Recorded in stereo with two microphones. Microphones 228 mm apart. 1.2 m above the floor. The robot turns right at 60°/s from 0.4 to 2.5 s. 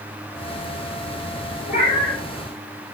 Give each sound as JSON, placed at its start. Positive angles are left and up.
{"t": 1.7, "sound": "a cat meowing", "azimuth_deg": 135, "distance_m": 1.0}